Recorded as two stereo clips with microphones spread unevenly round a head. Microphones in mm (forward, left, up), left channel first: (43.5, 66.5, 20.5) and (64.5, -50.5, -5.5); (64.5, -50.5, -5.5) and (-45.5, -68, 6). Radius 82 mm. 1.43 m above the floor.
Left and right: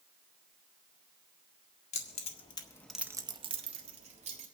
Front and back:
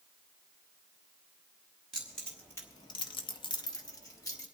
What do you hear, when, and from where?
1.9 s keys jangling: 100° left, 1.6 m; by 4.5 s 55° right, 2.5 m